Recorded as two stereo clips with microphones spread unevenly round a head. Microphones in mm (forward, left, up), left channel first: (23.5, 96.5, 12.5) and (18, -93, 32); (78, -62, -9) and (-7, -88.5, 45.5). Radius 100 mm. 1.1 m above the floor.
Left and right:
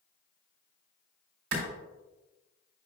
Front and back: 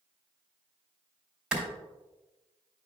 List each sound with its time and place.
1.5 s a clap: 85° right, 3 m